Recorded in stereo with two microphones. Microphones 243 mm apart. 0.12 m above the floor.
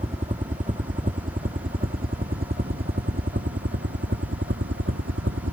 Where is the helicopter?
30° right (ahead or behind); by 5.5 s 55° right (ahead or behind).